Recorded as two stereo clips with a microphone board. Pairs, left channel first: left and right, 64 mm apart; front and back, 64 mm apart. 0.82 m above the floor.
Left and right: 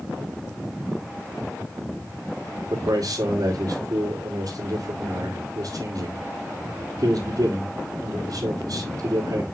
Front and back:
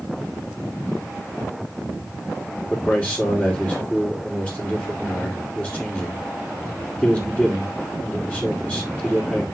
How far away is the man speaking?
About 2.5 m.